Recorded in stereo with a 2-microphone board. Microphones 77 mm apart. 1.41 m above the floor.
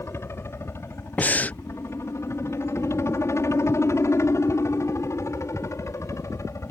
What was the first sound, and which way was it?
A helicopter, 35° left (ahead or behind).